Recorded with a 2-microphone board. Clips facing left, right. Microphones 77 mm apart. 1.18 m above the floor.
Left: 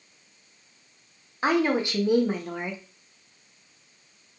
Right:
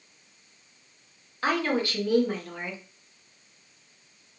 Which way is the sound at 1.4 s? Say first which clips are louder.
Left 3 dB; 20° left (ahead or behind).